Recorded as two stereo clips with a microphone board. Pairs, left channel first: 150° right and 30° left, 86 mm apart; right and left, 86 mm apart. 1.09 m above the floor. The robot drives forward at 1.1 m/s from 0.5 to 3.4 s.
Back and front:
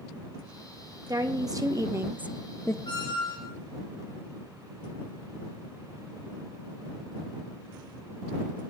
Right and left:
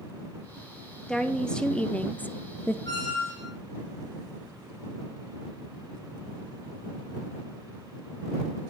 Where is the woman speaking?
5° right, 1.7 m; by 2.8 s 140° right, 0.5 m.